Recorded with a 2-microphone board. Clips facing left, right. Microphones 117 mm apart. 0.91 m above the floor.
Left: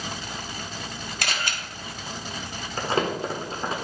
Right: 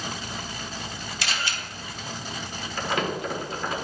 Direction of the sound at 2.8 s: 35° left (ahead or behind).